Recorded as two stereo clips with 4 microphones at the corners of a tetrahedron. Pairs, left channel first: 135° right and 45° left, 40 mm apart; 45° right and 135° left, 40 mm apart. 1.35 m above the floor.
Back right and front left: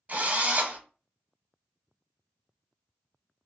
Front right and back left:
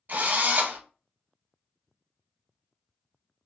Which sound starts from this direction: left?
A drill, at 0.1 s.